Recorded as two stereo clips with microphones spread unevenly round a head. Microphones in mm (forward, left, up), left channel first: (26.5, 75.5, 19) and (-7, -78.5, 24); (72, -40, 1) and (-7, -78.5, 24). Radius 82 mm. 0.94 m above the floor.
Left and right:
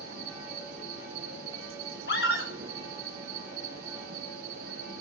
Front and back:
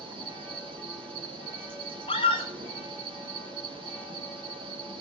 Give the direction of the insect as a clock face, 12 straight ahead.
5 o'clock.